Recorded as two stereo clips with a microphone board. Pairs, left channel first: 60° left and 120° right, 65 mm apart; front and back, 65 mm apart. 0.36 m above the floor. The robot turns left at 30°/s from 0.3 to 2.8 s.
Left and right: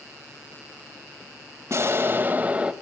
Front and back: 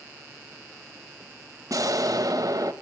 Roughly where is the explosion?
Behind.